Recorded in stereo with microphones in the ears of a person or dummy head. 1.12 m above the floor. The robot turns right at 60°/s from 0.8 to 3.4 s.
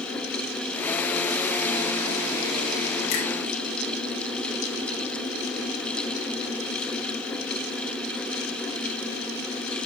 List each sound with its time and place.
3.1 s a finger snap: 65° left (ahead or behind), 3 m; by 3.2 s 55° left (ahead or behind), 3 m